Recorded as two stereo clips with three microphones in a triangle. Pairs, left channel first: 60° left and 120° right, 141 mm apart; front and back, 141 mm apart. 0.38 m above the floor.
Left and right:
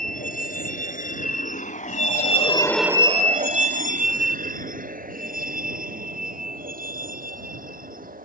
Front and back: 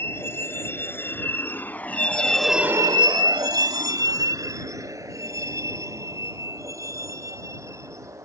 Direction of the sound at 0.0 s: 75° left.